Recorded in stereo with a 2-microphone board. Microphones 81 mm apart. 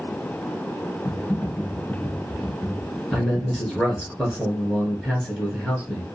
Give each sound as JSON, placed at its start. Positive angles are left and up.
{"t": 1.1, "sound": "typing on a keyboard", "side_deg": 20, "distance_m": 1.1}
{"t": 3.1, "sound": "a man speaking", "side_deg": 5, "distance_m": 1.1}